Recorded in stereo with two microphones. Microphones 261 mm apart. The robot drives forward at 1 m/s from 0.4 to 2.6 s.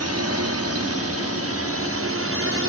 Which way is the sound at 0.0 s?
70° right (ahead or behind).